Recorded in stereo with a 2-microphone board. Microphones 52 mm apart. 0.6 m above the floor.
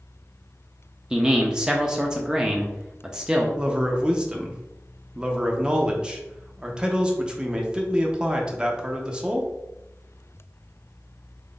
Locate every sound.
1.1 s a man speaking: 15° right (ahead or behind), 0.6 m
3.6 s a man speaking: 20° right (ahead or behind), 0.7 m